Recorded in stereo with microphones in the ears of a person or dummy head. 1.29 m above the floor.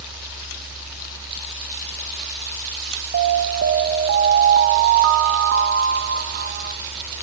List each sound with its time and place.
0.0 s a fan: 15° right (ahead or behind), 1.5 m
3.1 s an alarm: 50° right (ahead or behind), 0.8 m